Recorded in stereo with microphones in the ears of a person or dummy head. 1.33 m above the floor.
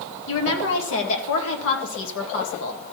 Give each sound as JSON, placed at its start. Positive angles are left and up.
{"t": 0.3, "sound": "a woman speaking", "side_deg": 70, "distance_m": 1.9}